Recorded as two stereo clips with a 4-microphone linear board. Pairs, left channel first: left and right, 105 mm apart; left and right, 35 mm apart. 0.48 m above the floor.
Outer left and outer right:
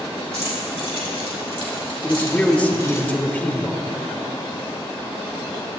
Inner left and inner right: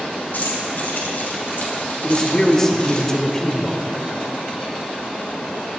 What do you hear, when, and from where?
0.3 s keys jangling: 80° left, 3.5 m; by 3.0 s 25° left (ahead or behind), 3 m
2.0 s a man speaking: 15° left (ahead or behind), 1.2 m